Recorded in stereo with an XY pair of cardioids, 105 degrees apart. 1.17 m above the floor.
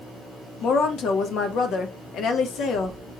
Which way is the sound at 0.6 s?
70° left.